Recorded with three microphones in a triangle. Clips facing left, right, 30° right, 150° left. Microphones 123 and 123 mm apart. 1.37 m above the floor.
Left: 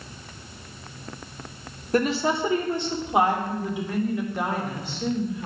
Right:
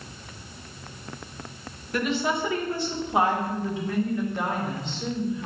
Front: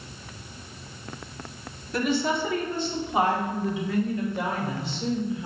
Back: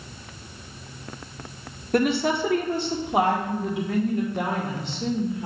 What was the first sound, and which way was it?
A woman speaking, 130° left.